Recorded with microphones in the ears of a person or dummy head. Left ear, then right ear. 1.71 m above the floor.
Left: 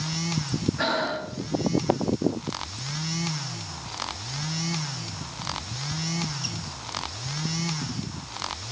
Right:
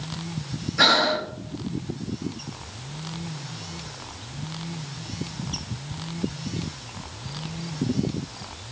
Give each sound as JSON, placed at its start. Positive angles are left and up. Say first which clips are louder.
{"t": 0.8, "sound": "breathing", "louder": "right 9 dB", "side_deg": -35, "distance_m": 0.5}